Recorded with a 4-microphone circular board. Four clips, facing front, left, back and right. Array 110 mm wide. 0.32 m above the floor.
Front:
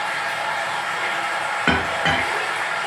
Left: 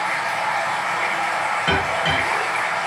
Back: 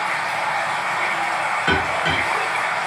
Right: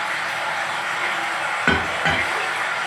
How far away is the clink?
About 0.7 m.